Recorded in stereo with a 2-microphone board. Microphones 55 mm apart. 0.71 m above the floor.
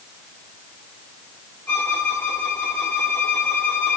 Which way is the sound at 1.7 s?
35° left (ahead or behind).